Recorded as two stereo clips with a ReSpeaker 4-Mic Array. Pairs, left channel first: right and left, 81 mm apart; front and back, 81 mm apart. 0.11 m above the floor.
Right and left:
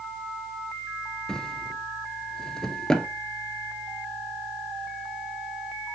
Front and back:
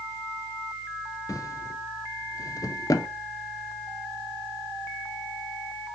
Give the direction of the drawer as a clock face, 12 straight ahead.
12 o'clock.